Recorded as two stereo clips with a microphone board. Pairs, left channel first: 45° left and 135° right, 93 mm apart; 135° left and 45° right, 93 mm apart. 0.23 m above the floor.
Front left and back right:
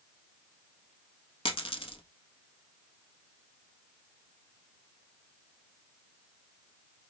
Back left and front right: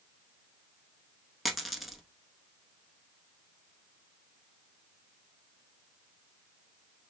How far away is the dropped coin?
About 0.7 m.